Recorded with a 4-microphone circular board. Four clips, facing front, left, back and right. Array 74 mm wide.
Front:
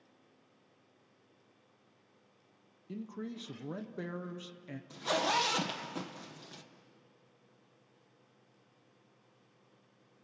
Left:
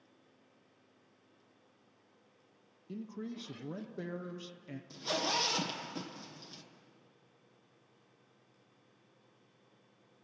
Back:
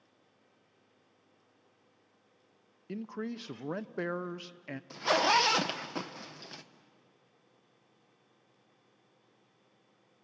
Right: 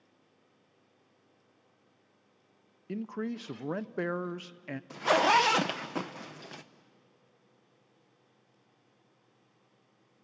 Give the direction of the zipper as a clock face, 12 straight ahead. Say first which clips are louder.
Right 12 dB, back 5 dB; 4 o'clock.